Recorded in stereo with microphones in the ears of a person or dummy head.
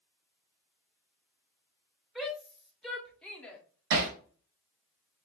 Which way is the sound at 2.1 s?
Centre (ahead or behind).